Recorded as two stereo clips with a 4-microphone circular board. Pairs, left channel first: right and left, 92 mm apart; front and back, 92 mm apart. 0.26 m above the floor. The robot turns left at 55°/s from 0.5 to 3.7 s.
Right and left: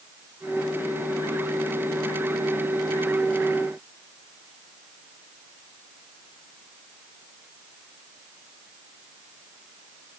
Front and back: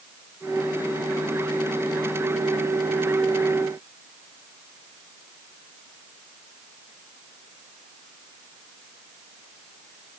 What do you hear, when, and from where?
Only background noise.